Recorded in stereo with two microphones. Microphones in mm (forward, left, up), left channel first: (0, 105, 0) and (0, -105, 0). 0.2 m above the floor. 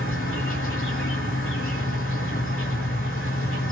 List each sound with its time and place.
0.0 s an insect: 85° left, 1.9 m